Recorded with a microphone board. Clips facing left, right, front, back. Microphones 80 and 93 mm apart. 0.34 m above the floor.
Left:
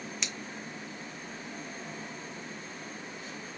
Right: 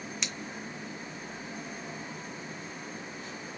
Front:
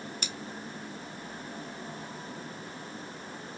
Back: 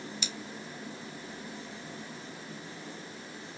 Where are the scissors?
Straight ahead, 0.8 m.